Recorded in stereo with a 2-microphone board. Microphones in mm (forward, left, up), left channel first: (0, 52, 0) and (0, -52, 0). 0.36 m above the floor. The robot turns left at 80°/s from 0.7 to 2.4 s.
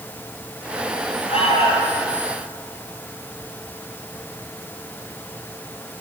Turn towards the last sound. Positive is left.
turn(degrees=30)